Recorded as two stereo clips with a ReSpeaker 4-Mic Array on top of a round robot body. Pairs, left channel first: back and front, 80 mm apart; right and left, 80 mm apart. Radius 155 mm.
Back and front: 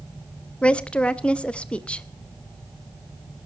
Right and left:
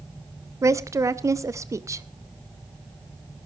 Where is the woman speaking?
110° left, 0.9 m.